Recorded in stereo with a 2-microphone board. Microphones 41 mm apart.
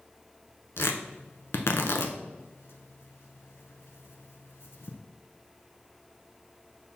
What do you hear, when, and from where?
0.8 s tearing paper: 80° left, 0.6 m